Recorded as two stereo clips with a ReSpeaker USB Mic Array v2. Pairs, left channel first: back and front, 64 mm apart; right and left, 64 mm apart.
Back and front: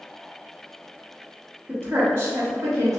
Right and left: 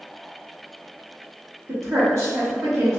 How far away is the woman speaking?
About 1.8 m.